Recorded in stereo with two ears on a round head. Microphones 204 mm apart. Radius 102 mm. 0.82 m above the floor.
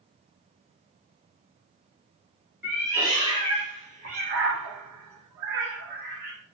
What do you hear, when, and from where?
2.6 s a cat meowing: 10° right (ahead or behind), 1.4 m; by 6.3 s 35° right (ahead or behind), 1.0 m